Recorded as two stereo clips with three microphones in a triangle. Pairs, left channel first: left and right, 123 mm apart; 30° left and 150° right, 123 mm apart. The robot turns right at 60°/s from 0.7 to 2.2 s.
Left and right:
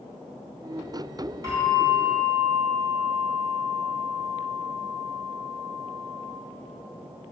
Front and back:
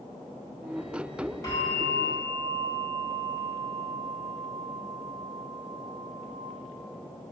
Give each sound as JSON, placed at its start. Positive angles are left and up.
{"t": 1.4, "sound": "a bell", "azimuth_deg": -30, "distance_m": 1.4}